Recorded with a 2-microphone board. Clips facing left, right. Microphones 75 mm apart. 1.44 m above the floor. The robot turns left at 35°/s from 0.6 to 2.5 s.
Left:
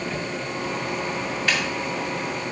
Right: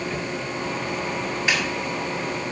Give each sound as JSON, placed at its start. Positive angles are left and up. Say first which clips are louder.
{"t": 1.5, "sound": "a snare drum", "louder": "right 1 dB", "side_deg": -15, "distance_m": 6.0}